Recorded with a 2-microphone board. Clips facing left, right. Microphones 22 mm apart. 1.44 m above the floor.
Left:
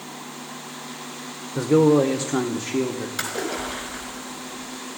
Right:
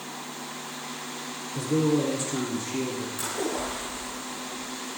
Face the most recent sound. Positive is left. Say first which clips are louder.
# left 2 dB
turn(degrees=65)  # may be behind; listen again after turning